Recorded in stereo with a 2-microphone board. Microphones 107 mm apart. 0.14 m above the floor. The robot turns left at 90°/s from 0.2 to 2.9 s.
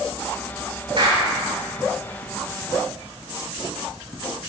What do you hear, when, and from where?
1.0 s a clap: 60° right (ahead or behind), 7 m; by 1.2 s 35° right (ahead or behind), 7 m